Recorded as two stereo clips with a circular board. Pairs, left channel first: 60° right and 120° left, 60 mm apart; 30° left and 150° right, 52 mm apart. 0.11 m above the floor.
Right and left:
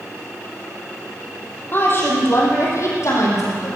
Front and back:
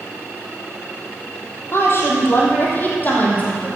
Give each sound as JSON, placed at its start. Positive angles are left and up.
{"t": 1.7, "sound": "a woman speaking", "azimuth_deg": -5, "distance_m": 4.0}